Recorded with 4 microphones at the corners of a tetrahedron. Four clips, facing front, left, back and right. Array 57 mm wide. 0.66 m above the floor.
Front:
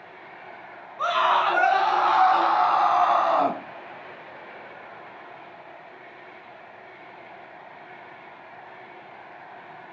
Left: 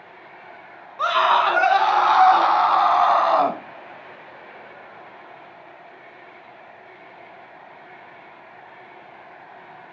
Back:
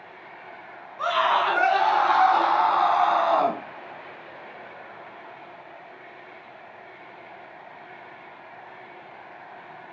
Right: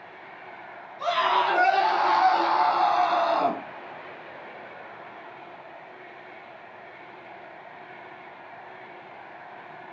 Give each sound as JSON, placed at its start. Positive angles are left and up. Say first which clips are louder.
{"t": 1.0, "sound": "a scream", "louder": "left 5 dB, front 1 dB", "azimuth_deg": 95, "distance_m": 7.0}